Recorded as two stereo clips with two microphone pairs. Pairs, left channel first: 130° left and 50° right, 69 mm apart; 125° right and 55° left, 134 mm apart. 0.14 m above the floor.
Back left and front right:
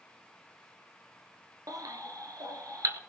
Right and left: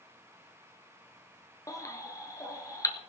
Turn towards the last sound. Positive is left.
turn(degrees=-60)